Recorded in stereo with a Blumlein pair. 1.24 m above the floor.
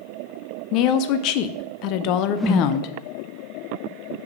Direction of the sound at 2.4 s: 10° left.